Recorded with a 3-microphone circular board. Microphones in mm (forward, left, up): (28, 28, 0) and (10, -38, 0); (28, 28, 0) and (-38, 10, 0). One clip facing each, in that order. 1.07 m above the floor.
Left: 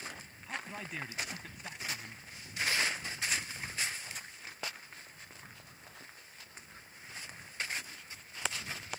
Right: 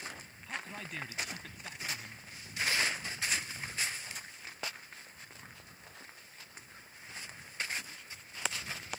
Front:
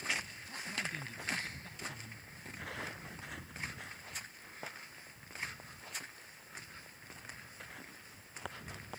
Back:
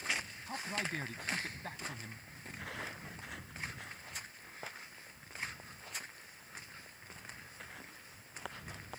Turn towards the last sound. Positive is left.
turn(degrees=155)